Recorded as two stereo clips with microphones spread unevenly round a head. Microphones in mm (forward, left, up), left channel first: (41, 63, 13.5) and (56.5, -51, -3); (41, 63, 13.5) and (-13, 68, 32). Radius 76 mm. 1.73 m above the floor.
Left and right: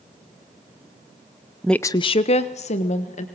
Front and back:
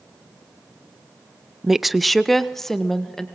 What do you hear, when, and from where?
1.6 s a woman speaking: straight behind, 0.5 m; by 3.2 s 85° left, 1.9 m